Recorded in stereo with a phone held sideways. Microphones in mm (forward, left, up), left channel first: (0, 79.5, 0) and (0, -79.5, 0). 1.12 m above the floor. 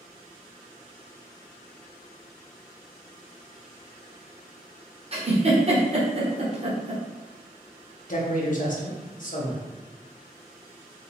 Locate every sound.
5.1 s a giggle: 40° right (ahead or behind), 0.9 m
8.1 s a man speaking: 55° left (ahead or behind), 0.9 m